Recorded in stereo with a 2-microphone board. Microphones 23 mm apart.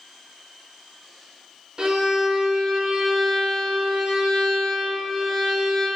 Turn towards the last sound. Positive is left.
turn(degrees=-35)  # may be behind; listen again after turning